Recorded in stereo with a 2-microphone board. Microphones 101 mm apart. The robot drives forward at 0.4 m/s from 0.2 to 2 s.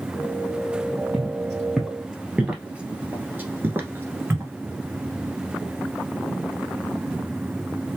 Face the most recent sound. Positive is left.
turn(degrees=-25)  # may be behind; listen again after turning